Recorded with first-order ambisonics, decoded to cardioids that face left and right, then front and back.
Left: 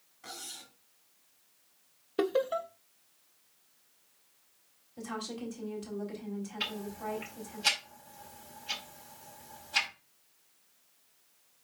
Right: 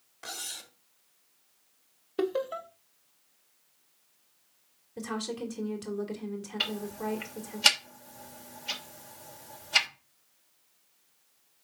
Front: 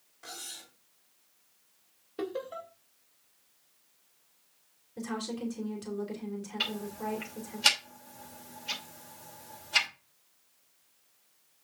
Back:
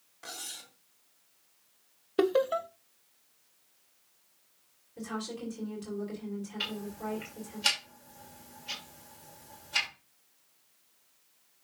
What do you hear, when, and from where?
0.2 s cutlery clinking: 100° right, 1.5 m
2.2 s laughter: 170° left, 0.6 m
5.0 s a woman speaking: 75° right, 2.5 m
6.6 s ticking: 75° right, 2.5 m